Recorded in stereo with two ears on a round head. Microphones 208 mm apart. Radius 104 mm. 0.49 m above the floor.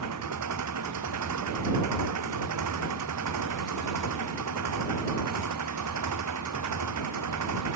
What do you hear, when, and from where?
0.0 s an engine running: 85° right